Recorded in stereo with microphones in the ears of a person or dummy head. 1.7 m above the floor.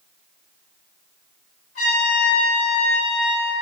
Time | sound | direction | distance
1.8 | a trumpet | 40° left (ahead or behind) | 1.9 m